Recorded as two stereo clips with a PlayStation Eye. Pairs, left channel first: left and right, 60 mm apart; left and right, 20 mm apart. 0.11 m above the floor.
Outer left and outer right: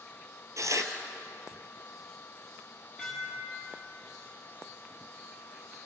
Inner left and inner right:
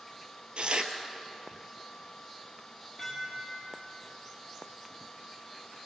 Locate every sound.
0.6 s tearing paper: 60° right (ahead or behind), 2.0 m
3.0 s dishes clattering: 5° left (ahead or behind), 7.5 m